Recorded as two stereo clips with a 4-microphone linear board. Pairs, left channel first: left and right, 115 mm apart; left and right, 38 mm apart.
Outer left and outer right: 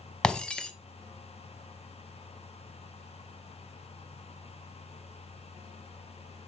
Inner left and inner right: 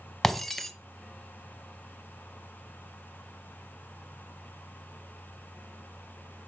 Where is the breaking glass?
10° left (ahead or behind), 0.8 m.